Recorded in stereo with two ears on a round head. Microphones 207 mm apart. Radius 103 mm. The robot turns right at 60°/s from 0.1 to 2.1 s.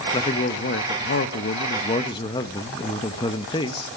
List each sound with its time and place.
0.1 s a man speaking: 30° left, 0.9 m; by 3.9 s 150° left, 0.9 m